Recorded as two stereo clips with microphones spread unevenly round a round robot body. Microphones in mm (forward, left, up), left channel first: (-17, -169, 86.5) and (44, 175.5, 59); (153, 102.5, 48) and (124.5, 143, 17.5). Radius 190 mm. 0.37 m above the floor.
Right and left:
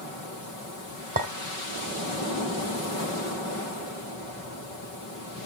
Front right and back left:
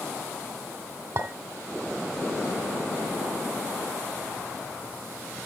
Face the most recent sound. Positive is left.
turn(degrees=145)